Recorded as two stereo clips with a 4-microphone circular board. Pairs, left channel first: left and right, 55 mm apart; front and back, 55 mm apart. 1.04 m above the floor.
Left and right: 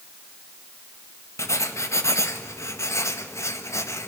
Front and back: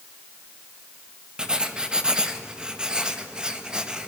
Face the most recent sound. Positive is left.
turn(degrees=105)